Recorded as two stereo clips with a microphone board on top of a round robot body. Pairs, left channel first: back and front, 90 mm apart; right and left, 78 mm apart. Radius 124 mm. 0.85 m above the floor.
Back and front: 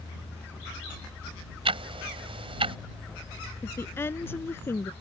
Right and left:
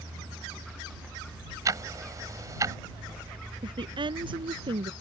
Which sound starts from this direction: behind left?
A woman speaking, at 3.6 s.